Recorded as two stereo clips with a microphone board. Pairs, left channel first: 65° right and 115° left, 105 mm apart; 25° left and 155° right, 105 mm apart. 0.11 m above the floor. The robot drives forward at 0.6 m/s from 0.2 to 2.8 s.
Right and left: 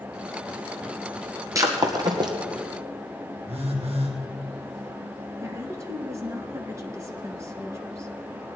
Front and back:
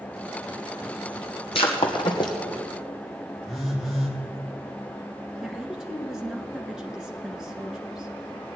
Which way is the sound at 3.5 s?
115° left.